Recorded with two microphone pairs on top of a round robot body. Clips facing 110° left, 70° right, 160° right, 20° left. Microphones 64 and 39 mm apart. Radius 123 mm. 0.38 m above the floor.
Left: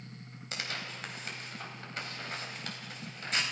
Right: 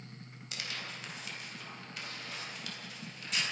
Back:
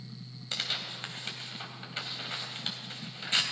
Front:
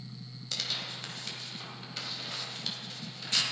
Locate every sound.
0.5 s tearing paper: 155° left, 3.5 m